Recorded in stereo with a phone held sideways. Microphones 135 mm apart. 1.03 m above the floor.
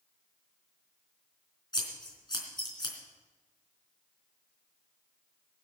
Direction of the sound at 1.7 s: 35° left (ahead or behind).